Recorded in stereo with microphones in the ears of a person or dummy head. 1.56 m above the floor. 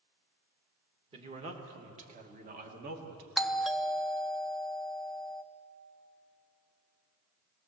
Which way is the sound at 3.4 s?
5° left (ahead or behind).